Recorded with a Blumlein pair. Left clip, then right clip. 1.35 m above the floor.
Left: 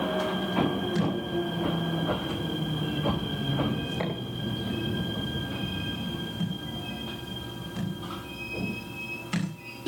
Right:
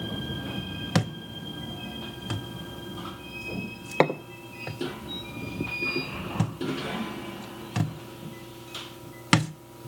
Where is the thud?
40° right, 2 m.